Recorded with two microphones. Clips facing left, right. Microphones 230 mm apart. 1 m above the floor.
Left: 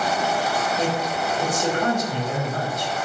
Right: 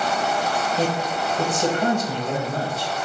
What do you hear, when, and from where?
0.8 s a man speaking: 30° right (ahead or behind), 4 m